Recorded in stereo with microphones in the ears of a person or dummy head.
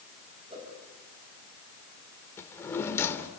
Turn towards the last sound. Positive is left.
turn(degrees=10)  # may be behind; listen again after turning